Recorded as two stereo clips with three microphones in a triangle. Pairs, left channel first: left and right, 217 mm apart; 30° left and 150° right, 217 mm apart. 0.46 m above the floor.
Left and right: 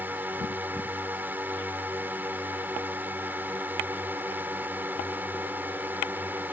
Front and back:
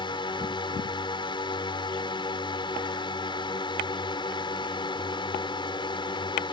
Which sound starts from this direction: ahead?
A drone, at 0.0 s.